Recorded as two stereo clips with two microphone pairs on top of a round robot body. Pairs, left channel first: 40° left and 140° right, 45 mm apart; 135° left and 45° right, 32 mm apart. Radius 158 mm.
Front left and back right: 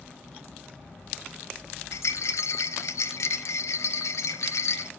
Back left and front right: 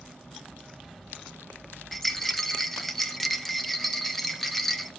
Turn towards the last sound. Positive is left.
turn(degrees=45)